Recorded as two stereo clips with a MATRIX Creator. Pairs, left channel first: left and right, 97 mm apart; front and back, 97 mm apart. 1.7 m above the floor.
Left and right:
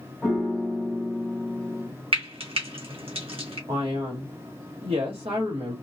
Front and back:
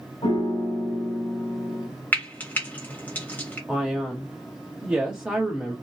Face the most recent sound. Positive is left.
turn(degrees=-100)